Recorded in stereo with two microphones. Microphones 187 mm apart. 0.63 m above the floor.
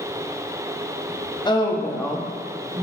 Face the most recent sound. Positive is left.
turn(degrees=-35)  # may be behind; listen again after turning